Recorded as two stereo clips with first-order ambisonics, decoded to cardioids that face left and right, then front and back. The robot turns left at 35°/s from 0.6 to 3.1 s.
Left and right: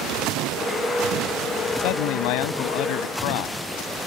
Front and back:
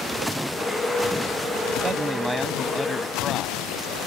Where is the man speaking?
110° left; by 3.6 s 65° left.